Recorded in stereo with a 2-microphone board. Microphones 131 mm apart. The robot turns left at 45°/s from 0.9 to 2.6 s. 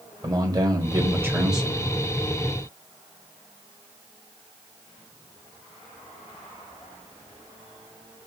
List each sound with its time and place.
0.2 s a man speaking: 145° right, 1.6 m; by 1.8 s 175° left, 1.6 m